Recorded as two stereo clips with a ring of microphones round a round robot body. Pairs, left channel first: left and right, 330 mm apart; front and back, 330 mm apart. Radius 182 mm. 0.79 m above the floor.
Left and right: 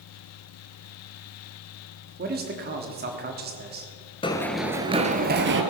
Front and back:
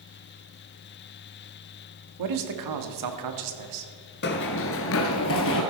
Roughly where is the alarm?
No alarm in this recording.